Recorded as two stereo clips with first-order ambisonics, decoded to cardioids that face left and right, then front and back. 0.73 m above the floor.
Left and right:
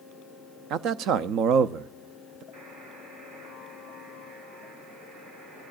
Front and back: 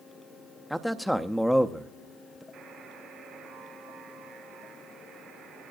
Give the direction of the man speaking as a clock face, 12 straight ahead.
3 o'clock.